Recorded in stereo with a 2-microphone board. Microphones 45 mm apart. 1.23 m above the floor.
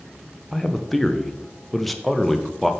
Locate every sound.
0.5 s a man speaking: centre (ahead or behind), 0.8 m